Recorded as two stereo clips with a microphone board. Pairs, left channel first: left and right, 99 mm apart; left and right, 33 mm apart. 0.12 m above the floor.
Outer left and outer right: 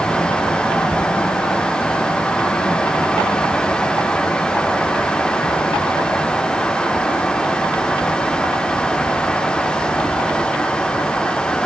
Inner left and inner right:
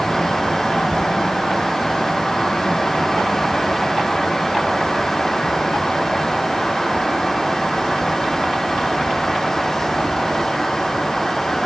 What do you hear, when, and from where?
Only background noise.